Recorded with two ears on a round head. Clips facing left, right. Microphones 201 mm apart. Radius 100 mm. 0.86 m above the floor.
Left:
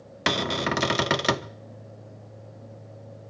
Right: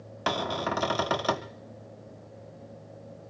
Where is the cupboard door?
30° left (ahead or behind), 0.5 m.